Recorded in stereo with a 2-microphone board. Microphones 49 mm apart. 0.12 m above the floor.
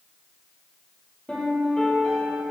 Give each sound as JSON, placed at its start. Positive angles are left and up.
{"t": 1.3, "sound": "a piano", "side_deg": 15, "distance_m": 3.0}